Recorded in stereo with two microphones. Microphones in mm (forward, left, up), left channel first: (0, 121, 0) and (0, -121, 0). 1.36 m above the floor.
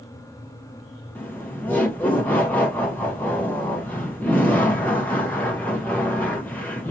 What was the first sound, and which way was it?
Laughter, 5° left (ahead or behind).